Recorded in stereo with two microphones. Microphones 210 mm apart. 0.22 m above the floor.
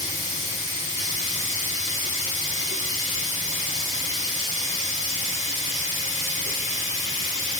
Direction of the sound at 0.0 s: 75° right (ahead or behind).